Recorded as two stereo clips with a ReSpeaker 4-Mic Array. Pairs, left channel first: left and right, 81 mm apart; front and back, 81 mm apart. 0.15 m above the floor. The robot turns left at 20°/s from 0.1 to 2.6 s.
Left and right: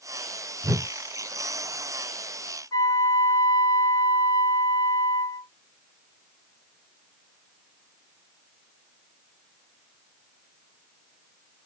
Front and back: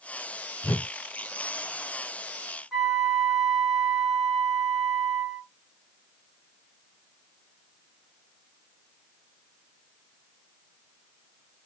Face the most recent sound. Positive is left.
turn(degrees=90)